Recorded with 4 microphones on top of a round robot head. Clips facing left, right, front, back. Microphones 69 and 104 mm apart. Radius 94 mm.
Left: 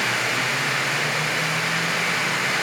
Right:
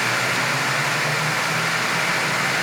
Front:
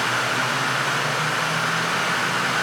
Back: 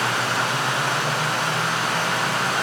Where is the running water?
120° right, 4 m.